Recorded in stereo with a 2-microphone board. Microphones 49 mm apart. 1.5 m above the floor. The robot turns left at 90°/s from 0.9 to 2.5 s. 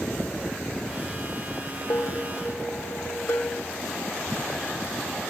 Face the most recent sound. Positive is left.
turn(degrees=50)